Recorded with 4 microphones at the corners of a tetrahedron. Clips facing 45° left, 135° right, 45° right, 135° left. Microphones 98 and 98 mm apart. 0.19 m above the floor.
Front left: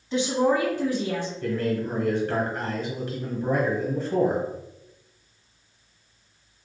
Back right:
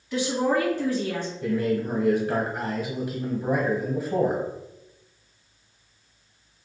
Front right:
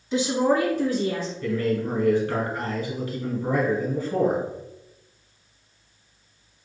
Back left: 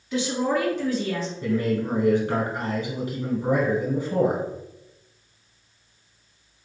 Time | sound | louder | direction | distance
0.1 | a woman speaking | front left 2 dB, front right 3 dB | straight ahead | 1.6 m
1.4 | a man speaking | back right 3 dB, back left 1 dB | 160° left | 1.2 m